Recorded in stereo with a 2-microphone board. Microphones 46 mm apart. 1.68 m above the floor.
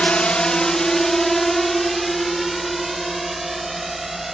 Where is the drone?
25° left (ahead or behind); by 4.3 s 5° right (ahead or behind).